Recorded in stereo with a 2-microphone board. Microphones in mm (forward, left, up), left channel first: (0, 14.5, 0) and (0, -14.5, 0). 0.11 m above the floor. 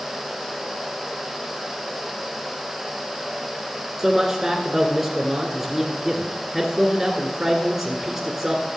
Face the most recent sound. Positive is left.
turn(degrees=-15)  # may be behind; listen again after turning